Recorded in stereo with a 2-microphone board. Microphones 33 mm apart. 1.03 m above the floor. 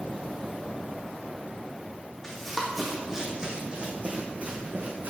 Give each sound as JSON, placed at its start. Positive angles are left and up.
{"t": 2.2, "sound": "running footsteps", "side_deg": 10, "distance_m": 2.0}